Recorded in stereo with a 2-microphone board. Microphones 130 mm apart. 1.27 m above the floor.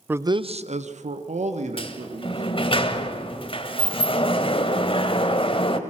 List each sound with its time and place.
0.1 s a man speaking: 15° right (ahead or behind), 0.7 m; by 2.4 s 60° right (ahead or behind), 3 m
1.8 s a sliding door: 45° left (ahead or behind), 1.4 m